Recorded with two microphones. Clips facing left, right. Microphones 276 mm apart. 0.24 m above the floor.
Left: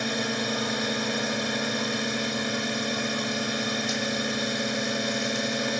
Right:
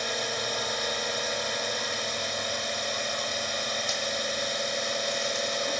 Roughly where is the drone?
Left.